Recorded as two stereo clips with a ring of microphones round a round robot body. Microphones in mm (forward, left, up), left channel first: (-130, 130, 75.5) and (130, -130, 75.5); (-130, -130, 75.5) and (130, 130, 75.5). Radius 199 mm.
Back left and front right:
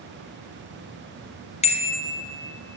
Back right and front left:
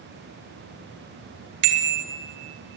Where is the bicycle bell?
60° left, 3 m; by 2.8 s 50° left, 3.5 m.